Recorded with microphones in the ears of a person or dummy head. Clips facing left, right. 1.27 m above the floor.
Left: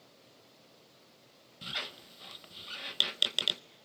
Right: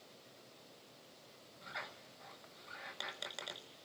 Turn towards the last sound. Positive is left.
turn(degrees=50)  # may be behind; listen again after turning